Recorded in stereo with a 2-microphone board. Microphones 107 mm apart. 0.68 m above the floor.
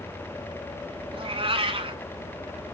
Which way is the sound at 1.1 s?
60° right (ahead or behind).